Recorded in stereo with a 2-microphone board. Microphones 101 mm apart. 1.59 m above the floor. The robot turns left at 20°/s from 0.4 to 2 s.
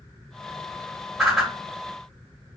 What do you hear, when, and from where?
1.2 s a whoosh: 5° right (ahead or behind), 1.4 m; by 1.5 s centre (ahead or behind), 1.4 m